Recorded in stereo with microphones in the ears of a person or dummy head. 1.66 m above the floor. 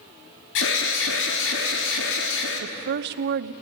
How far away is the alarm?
About 3.5 m.